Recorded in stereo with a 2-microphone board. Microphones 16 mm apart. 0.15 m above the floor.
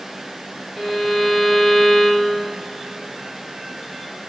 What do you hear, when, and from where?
0.8 s a violin: centre (ahead or behind), 1.6 m